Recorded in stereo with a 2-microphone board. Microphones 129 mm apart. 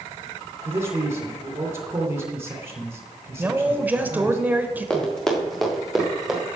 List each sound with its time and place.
0.7 s a man speaking: 20° right (ahead or behind), 2.5 m
3.4 s a woman speaking: 15° right (ahead or behind), 1.2 m
4.9 s running footsteps: 5° left (ahead or behind), 4 m; by 6.4 s 5° right (ahead or behind), 5 m